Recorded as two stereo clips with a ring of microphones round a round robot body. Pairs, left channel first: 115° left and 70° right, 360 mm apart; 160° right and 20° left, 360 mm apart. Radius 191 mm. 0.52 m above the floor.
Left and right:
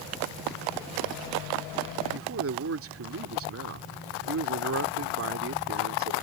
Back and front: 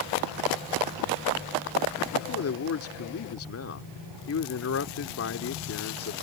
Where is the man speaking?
115° right.